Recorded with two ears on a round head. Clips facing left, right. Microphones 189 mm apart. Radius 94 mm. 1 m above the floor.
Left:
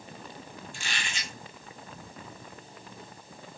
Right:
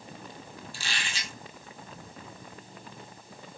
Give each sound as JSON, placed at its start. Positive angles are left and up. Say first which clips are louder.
{"t": 0.7, "sound": "a squeak", "louder": "even", "side_deg": -35, "distance_m": 1.2}